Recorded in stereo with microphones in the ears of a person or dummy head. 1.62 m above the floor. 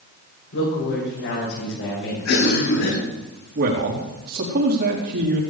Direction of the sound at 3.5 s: 65° right (ahead or behind).